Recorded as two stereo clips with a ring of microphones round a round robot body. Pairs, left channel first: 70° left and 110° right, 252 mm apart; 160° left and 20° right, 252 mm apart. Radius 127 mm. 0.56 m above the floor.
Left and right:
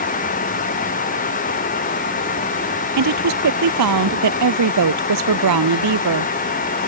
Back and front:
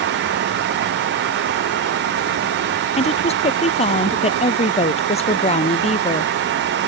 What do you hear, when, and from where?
3.0 s a woman speaking: 135° right